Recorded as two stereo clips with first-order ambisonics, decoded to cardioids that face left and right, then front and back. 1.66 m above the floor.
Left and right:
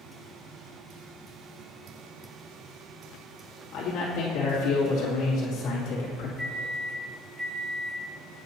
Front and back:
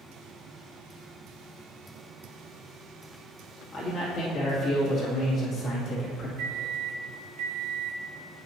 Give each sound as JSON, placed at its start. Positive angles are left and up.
{"t": 3.7, "sound": "a man speaking", "azimuth_deg": 55, "distance_m": 2.0}
{"t": 6.4, "sound": "a microwave", "azimuth_deg": -175, "distance_m": 1.1}